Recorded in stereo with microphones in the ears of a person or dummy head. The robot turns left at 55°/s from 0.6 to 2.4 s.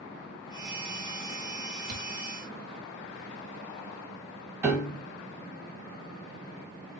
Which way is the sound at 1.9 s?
55° right (ahead or behind).